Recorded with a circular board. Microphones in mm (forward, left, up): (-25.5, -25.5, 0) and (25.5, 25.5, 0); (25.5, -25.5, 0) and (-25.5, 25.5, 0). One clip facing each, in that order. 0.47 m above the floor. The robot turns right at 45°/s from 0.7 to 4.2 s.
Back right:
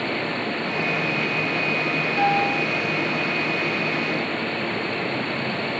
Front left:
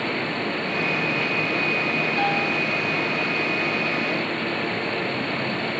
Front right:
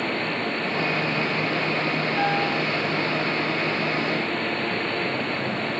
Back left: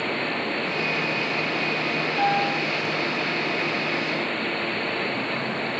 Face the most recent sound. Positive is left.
turn(degrees=20)